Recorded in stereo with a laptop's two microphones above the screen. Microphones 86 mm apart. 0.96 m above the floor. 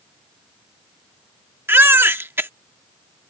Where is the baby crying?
25° right (ahead or behind).